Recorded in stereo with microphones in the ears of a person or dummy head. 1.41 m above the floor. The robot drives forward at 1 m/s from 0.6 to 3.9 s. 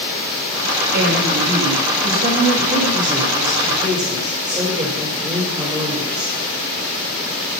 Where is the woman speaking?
70° right (ahead or behind), 2.5 m; by 6.3 s 30° right (ahead or behind), 4.5 m.